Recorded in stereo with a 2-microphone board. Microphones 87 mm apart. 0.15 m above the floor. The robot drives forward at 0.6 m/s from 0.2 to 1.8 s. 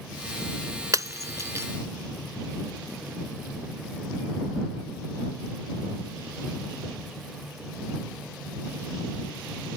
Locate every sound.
0.9 s breaking glass: 40° right (ahead or behind); by 1.7 s 35° right (ahead or behind)